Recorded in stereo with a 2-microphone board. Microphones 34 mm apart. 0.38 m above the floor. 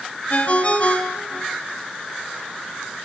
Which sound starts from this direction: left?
A ringtone, at 0.3 s.